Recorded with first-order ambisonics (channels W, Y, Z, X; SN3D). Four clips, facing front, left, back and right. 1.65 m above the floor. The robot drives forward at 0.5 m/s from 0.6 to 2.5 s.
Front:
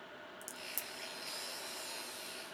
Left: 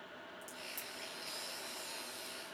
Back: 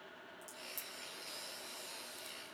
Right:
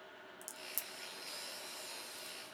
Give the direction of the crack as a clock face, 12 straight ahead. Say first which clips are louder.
Even, front 3 dB; 1 o'clock.